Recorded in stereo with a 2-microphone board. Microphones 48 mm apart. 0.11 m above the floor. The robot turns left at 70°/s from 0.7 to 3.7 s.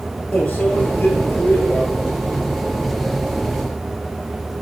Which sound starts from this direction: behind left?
A microwave, at 0.3 s.